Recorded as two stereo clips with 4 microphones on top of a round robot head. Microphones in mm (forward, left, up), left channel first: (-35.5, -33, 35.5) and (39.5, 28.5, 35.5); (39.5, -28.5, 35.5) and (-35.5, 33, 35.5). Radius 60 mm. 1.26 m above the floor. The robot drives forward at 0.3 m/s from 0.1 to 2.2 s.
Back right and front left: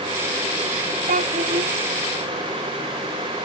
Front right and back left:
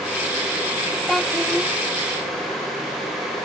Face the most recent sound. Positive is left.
turn(degrees=65)